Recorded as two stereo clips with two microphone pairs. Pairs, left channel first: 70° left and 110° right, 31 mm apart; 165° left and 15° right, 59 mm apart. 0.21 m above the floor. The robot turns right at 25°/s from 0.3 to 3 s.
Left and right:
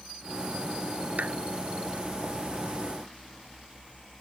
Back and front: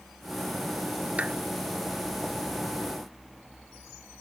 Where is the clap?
80° right; by 1.4 s 75° right.